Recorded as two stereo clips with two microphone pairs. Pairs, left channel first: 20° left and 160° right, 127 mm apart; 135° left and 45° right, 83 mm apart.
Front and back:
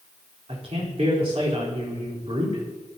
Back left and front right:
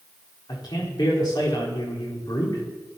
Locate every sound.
0.5 s a man speaking: 165° left, 4 m